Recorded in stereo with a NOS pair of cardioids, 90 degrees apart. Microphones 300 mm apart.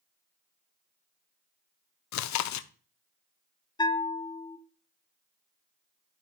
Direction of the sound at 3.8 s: 15° left.